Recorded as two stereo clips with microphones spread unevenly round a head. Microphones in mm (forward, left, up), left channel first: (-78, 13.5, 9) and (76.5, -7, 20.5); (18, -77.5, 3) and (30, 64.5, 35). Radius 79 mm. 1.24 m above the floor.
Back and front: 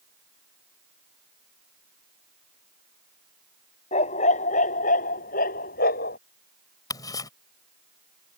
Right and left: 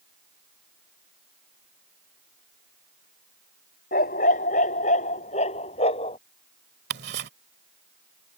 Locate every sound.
3.9 s a dog barking: 135° right; by 6.2 s 155° right
6.9 s ticking: 105° left